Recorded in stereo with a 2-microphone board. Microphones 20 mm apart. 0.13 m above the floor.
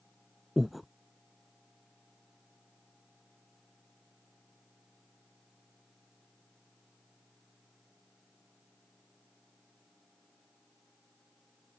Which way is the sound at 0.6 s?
5° right (ahead or behind).